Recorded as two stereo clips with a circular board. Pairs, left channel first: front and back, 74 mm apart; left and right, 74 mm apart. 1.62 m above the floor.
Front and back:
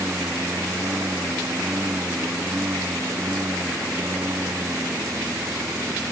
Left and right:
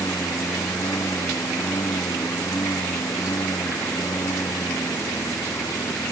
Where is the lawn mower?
125° left.